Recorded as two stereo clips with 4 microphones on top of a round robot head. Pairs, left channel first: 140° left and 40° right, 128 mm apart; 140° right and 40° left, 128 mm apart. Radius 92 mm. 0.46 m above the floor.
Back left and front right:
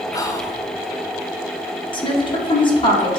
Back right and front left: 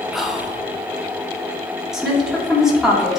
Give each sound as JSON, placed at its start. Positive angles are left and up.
{"t": 0.1, "sound": "whispering", "azimuth_deg": 125, "distance_m": 0.7}
{"t": 1.9, "sound": "a woman speaking", "azimuth_deg": 125, "distance_m": 1.4}